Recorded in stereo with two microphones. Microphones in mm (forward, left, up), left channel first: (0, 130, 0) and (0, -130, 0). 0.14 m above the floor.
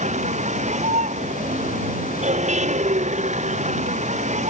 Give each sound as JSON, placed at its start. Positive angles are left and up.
{"t": 0.0, "sound": "a vehicle", "side_deg": -25}